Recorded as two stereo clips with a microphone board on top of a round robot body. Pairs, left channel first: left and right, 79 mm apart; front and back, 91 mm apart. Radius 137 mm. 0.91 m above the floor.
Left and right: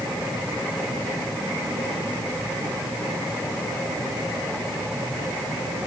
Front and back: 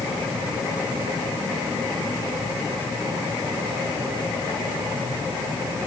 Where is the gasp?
No gasp in this recording.